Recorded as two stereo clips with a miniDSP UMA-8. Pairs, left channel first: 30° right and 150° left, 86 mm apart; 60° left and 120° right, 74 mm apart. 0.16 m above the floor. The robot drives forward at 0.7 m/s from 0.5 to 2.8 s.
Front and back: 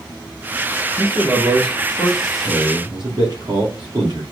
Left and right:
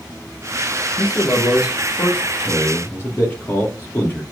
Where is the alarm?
I don't hear an alarm.